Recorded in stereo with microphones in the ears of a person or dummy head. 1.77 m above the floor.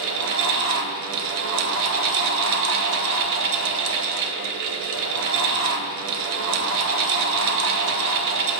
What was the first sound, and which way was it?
A fan, 65° right (ahead or behind).